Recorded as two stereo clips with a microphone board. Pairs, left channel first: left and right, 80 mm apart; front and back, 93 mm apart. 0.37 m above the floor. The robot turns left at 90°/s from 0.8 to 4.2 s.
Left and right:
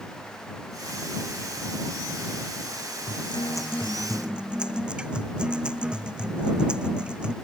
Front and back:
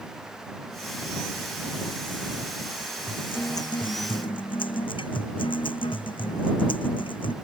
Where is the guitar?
90° left; by 7.3 s 10° right.